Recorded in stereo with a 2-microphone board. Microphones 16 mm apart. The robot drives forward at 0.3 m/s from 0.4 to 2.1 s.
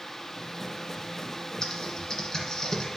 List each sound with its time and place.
1.6 s typing on a keyboard: 35° left (ahead or behind), 1.8 m; by 2.9 s 30° left (ahead or behind), 1.9 m